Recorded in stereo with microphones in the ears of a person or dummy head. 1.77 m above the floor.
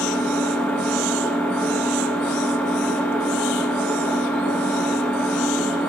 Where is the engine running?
10° left (ahead or behind), 1.2 m.